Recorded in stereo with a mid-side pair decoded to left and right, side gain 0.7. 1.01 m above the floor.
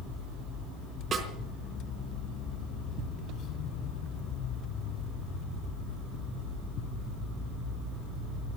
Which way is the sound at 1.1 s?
30° right.